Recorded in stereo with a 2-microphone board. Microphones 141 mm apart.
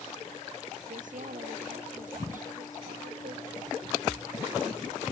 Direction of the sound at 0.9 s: 70° right (ahead or behind).